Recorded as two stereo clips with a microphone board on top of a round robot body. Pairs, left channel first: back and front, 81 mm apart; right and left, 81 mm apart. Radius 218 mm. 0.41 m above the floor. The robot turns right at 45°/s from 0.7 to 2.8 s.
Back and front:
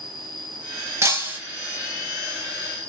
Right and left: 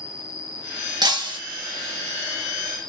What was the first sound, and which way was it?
An insect, 90° left.